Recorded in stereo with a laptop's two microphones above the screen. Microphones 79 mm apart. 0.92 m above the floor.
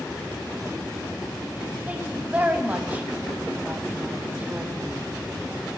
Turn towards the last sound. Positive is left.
turn(degrees=-20)  # may be behind; listen again after turning